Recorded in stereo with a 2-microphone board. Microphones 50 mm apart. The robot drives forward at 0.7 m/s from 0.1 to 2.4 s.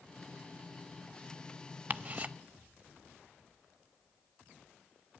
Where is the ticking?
35° right (ahead or behind), 0.5 m; by 2.3 s 25° right (ahead or behind), 0.6 m.